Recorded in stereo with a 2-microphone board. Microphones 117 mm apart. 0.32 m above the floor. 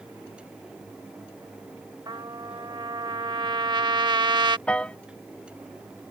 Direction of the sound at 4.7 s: 10° left (ahead or behind).